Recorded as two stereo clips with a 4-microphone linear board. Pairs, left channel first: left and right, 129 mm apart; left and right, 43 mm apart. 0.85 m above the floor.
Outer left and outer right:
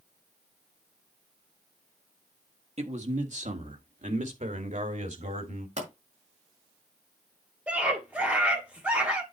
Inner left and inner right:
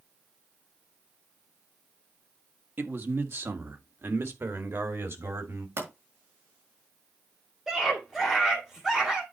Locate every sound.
2.8 s a man speaking: 55° right (ahead or behind), 1.4 m; by 5.7 s 70° right (ahead or behind), 2.5 m
5.8 s a pop: 65° right (ahead or behind), 5 m
7.7 s a scream: 10° right (ahead or behind), 2.5 m